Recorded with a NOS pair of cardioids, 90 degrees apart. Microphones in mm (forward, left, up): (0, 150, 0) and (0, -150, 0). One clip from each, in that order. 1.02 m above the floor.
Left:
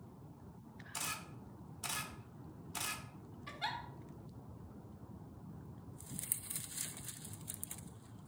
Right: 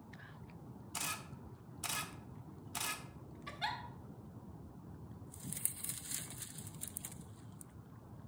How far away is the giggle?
About 1.9 m.